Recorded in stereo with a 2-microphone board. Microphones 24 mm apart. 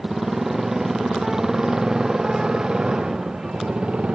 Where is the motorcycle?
15° right (ahead or behind); by 4.2 s 45° right (ahead or behind).